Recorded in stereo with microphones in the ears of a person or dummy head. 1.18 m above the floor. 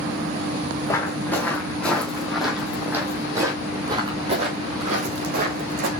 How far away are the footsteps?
About 3 m.